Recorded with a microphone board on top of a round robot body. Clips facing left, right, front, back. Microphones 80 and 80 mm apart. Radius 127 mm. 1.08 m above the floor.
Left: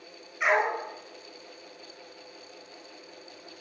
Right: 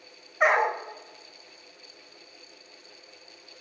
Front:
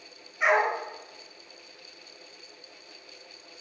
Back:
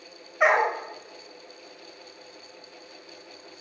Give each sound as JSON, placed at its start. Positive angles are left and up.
{"t": 0.4, "sound": "a dog barking", "azimuth_deg": -145, "distance_m": 1.5}